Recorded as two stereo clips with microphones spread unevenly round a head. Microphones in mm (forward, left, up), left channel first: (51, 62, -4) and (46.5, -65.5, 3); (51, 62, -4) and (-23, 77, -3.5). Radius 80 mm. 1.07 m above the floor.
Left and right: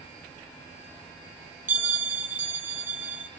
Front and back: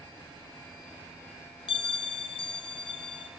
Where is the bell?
15° right, 1.1 m.